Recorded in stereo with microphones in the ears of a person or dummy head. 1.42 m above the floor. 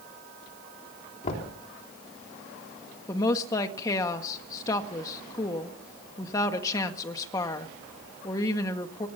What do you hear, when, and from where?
1.2 s knocking: 45° left (ahead or behind), 3.5 m
3.1 s a woman speaking: 20° left (ahead or behind), 1.7 m